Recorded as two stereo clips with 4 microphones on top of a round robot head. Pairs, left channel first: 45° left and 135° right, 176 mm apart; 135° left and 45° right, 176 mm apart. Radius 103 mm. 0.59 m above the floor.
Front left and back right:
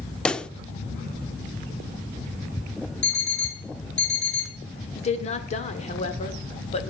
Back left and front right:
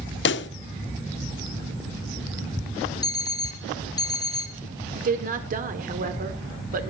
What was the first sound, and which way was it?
A pop, 125° left.